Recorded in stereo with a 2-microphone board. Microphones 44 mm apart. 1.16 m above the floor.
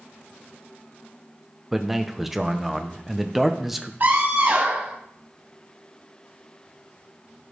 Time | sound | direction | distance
1.7 | a man speaking | 5° right (ahead or behind) | 0.7 m
4.0 | a scream | 45° right (ahead or behind) | 1.6 m